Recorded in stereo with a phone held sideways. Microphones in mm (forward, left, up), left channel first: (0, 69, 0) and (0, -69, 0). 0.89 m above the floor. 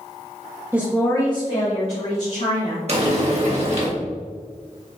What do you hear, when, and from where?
0.7 s a woman speaking: 15° right (ahead or behind), 0.8 m; by 2.8 s 65° left (ahead or behind), 3 m
2.9 s frying: 50° right (ahead or behind), 1.6 m